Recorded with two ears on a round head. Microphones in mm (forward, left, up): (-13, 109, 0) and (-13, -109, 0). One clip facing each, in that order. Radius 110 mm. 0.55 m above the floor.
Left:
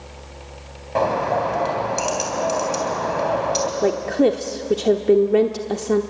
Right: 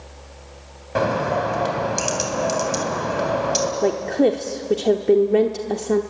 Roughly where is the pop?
No pop in this recording.